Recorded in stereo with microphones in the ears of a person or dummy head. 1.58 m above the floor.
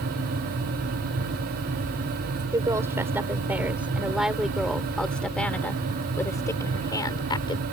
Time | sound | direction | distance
2.5 | a woman speaking | 15° right (ahead or behind) | ?